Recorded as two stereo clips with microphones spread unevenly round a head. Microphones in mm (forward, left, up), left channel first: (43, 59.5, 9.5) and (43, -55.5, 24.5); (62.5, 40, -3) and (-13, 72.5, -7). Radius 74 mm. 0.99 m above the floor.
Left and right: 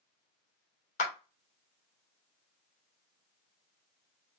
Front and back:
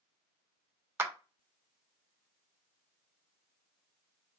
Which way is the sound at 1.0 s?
95° left.